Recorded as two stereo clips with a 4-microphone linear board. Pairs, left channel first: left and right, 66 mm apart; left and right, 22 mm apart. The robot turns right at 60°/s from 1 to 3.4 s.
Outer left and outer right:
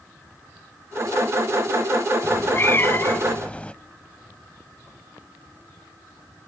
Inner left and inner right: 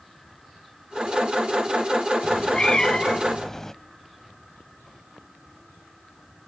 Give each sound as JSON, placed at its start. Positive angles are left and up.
{"t": 2.2, "sound": "a cat meowing", "azimuth_deg": 75, "distance_m": 0.7}